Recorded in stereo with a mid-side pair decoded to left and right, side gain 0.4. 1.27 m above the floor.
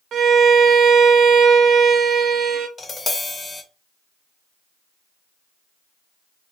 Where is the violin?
65° right, 0.6 m.